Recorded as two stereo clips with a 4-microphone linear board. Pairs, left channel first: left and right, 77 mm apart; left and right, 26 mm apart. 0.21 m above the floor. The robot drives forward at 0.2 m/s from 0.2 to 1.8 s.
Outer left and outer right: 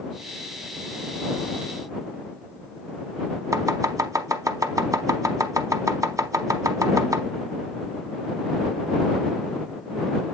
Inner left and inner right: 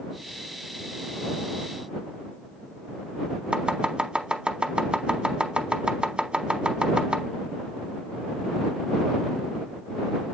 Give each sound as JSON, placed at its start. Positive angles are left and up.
{"t": 3.5, "sound": "chopping", "side_deg": -45, "distance_m": 0.9}